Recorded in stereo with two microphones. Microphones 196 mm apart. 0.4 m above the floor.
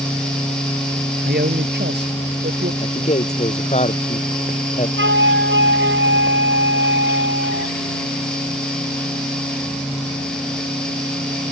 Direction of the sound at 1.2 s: 55° right (ahead or behind).